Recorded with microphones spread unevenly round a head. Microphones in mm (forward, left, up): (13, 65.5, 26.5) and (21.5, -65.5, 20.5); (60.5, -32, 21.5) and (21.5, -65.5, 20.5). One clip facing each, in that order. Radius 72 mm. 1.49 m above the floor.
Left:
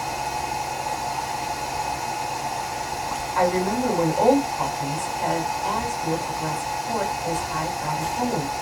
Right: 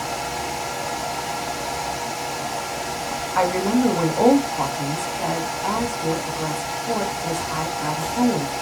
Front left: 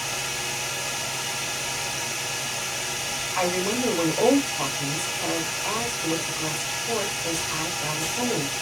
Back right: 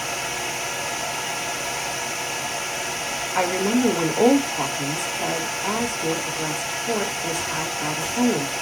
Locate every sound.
0.0 s a fan: 90° right, 0.9 m
3.4 s a woman speaking: 115° right, 1.9 m